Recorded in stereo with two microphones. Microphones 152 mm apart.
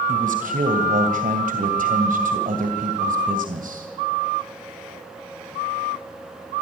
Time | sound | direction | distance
0.1 | a man speaking | 60° right (ahead or behind) | 2 m